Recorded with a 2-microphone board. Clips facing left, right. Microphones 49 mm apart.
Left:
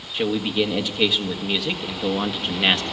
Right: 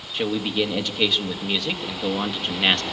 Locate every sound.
0.1 s a man speaking: centre (ahead or behind), 1.5 m